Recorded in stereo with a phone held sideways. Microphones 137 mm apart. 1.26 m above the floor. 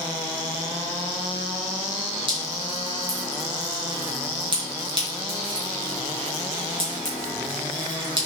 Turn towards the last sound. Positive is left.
turn(degrees=-40)  # may be behind; listen again after turning